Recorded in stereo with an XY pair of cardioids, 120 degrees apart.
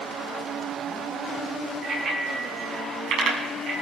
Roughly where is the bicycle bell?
Ahead right.